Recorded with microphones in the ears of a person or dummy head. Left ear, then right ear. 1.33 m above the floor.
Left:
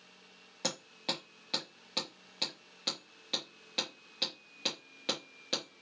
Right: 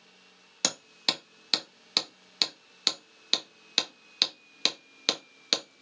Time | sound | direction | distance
0.6 | hammering | 45° right (ahead or behind) | 1.4 m